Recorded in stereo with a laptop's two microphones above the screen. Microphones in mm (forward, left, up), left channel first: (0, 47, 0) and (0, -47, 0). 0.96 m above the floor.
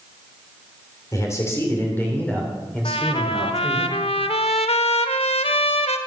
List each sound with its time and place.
1.1 s a man speaking: 30° left (ahead or behind), 3.5 m; by 3.9 s 5° right (ahead or behind), 3.5 m
2.9 s a trumpet: 75° left (ahead or behind), 1.3 m